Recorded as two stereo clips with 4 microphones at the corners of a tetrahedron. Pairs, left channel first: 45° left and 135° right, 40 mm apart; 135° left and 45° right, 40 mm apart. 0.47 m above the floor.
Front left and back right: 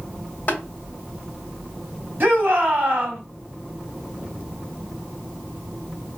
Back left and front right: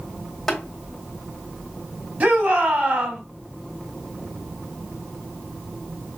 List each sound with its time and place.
0.5 s tapping: 50° left, 1.7 m
2.2 s a shout: 95° right, 2.5 m